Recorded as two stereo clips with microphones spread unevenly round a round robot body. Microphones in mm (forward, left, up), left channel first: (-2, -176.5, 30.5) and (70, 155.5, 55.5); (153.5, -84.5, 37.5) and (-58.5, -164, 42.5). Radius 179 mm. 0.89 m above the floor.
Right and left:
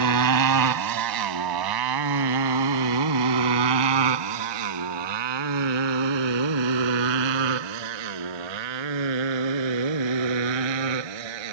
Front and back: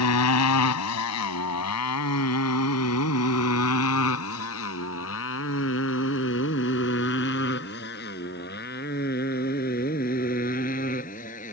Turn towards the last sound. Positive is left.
turn(degrees=90)